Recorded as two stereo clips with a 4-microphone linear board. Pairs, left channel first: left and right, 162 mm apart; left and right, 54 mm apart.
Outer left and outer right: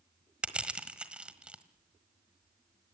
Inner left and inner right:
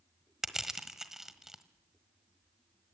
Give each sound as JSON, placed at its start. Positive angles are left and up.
{"t": 0.4, "sound": "crushing", "side_deg": -5, "distance_m": 1.4}